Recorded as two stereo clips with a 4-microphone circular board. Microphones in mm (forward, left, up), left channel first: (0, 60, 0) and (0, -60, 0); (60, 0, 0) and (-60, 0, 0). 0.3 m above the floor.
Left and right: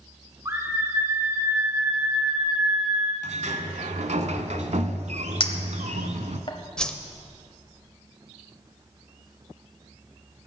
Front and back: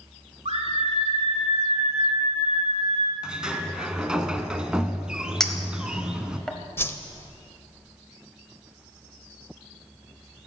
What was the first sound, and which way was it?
A scream, 150° right.